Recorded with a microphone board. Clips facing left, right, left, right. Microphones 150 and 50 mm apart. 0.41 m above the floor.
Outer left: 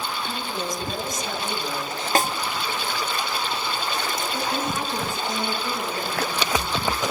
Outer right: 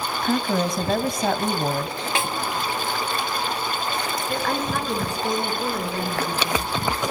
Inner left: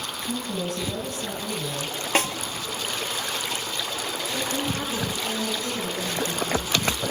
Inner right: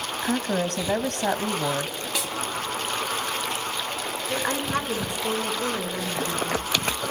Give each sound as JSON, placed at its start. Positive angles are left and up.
{"t": 0.2, "sound": "a woman speaking", "side_deg": -70, "distance_m": 2.5}
{"t": 2.1, "sound": "a snare drum", "side_deg": 45, "distance_m": 1.5}
{"t": 4.3, "sound": "a woman speaking", "side_deg": -75, "distance_m": 6.0}